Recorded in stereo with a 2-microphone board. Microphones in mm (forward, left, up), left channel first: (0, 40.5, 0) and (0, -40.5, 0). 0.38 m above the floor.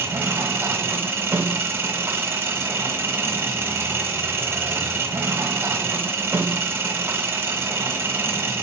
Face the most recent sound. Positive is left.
turn(degrees=-30)  # may be behind; listen again after turning